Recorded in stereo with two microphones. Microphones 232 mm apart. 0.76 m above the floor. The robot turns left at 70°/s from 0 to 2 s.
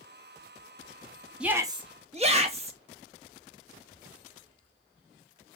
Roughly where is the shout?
Ahead.